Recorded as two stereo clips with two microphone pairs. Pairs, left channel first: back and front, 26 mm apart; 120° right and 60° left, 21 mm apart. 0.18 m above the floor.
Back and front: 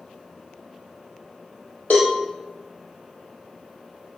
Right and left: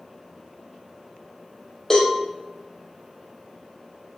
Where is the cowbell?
165° left, 3.5 m.